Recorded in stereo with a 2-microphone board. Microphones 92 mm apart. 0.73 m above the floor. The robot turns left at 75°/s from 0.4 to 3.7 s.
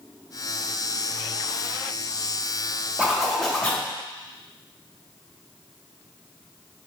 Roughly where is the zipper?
Behind right.